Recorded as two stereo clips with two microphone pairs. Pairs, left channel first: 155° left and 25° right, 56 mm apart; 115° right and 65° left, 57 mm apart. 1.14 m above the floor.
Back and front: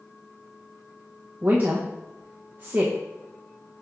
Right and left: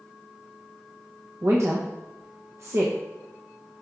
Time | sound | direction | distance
1.4 | a woman speaking | 35° left | 0.8 m